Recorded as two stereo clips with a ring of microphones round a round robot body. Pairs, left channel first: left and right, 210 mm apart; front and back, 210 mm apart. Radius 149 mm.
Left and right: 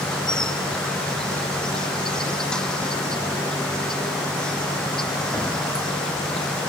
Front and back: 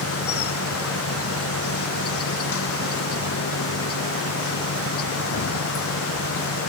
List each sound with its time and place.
0.0 s an insect: 5° left